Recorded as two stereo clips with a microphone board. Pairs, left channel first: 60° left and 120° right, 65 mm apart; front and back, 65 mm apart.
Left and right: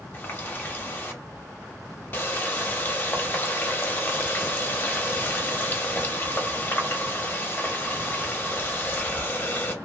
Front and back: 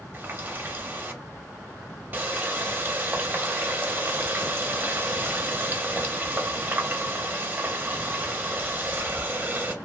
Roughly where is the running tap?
Behind left.